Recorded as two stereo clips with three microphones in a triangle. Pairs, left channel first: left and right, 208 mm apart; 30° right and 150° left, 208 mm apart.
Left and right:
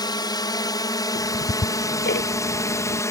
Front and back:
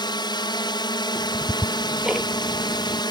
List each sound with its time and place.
0.0 s a drone: 30° left; by 3.1 s 25° left
1.1 s ticking: 65° left